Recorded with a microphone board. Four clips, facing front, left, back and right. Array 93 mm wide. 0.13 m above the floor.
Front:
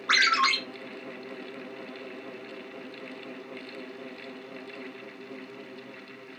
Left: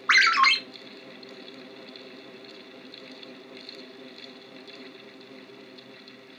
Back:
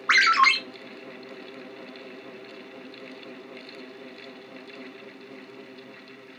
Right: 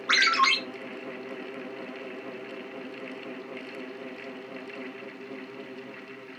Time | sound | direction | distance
0.1 | a ringtone | 130° left | 1.3 m